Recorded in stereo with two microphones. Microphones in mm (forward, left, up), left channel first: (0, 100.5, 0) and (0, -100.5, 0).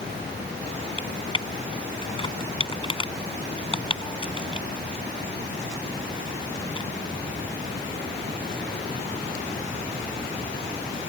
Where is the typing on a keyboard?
25° left (ahead or behind).